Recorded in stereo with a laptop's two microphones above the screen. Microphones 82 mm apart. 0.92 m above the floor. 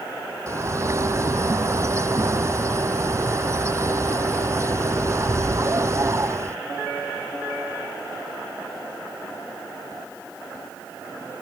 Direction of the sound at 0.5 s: 35° right (ahead or behind).